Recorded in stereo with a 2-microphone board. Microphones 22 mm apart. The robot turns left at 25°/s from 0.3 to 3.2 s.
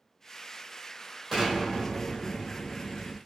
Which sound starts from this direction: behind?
An explosion, at 1.3 s.